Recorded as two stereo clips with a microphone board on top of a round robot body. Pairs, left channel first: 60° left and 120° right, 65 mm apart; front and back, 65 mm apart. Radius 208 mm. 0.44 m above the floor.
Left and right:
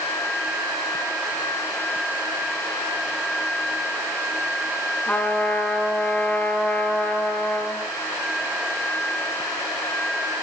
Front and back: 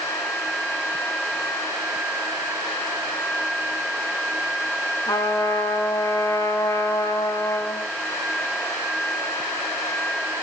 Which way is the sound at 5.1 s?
10° right.